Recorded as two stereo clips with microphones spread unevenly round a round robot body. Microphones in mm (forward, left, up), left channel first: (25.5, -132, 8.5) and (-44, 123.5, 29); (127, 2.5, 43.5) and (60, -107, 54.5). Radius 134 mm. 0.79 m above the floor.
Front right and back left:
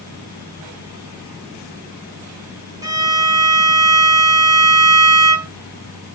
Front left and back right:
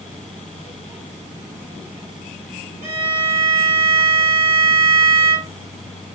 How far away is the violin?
About 0.7 m.